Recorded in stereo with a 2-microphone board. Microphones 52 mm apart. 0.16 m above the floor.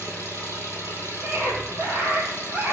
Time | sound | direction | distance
0.0 | an engine running | 75° right (ahead or behind) | 5 m
1.2 | a scream | 40° right (ahead or behind) | 4.5 m